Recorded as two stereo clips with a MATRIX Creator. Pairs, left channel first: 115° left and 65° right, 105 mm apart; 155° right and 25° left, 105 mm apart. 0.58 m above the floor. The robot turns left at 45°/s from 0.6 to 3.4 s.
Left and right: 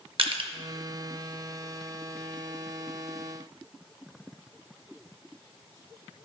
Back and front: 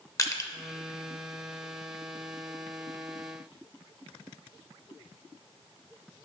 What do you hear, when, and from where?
0.2 s crushing: 100° right, 0.7 m